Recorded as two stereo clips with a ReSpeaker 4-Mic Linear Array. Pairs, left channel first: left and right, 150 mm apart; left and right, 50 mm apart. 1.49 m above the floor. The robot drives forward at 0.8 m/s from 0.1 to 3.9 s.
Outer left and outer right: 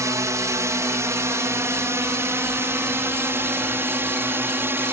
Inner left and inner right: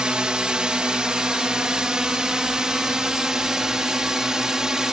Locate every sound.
0.0 s a drone: 20° right (ahead or behind); by 4.9 s 15° right (ahead or behind)